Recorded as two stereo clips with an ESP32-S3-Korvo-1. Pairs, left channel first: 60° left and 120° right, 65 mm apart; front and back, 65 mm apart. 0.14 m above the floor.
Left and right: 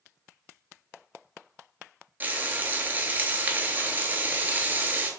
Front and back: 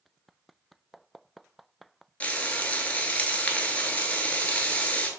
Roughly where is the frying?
Ahead right.